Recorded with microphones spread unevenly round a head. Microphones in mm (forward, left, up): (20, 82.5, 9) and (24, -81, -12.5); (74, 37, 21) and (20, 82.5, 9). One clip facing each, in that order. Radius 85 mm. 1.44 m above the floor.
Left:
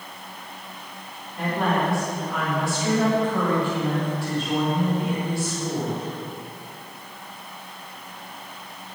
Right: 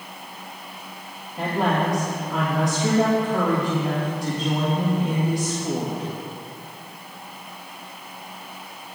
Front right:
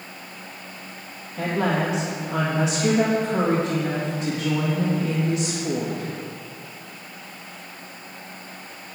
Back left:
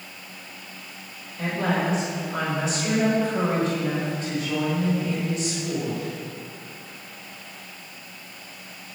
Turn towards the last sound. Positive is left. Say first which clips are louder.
# right 1 dB, front right 2 dB
turn(degrees=-15)